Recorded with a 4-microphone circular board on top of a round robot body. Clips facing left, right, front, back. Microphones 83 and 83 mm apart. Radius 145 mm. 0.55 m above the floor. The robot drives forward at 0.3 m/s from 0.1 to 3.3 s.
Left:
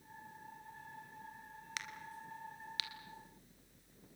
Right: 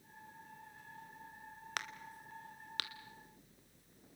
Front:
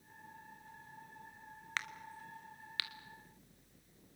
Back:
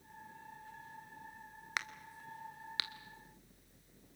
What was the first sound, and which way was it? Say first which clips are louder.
A crack: right 3 dB, back 1 dB; 110° right.